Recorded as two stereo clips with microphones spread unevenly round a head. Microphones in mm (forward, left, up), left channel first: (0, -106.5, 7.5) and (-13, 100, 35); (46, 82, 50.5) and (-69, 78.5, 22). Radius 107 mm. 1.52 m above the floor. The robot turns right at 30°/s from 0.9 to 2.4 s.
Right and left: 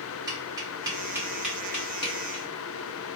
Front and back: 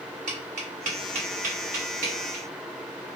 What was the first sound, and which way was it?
Tapping, 165° left.